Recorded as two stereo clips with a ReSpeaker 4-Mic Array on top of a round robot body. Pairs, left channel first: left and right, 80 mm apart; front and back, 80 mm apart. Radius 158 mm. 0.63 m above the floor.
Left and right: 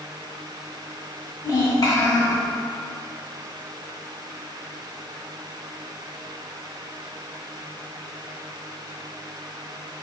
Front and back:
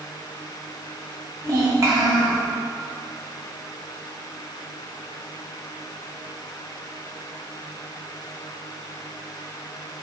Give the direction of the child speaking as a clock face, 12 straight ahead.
8 o'clock.